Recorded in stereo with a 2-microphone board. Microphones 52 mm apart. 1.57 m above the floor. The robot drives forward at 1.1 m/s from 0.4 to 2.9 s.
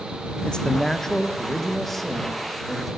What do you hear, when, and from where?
0.5 s a man speaking: 20° left (ahead or behind), 0.8 m; by 2.9 s 5° left (ahead or behind), 3.5 m